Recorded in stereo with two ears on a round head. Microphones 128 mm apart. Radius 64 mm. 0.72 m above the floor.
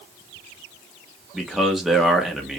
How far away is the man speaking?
About 1.4 m.